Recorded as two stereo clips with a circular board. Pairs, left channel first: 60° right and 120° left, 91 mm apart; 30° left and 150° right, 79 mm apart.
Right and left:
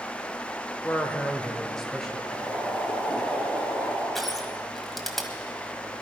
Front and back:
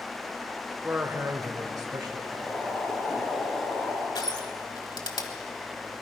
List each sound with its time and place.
0.8 s a man speaking: 95° right, 0.9 m; by 3.2 s 155° right, 3 m
2.2 s boiling: 30° right, 4.5 m
4.2 s crushing: 30° left, 1.4 m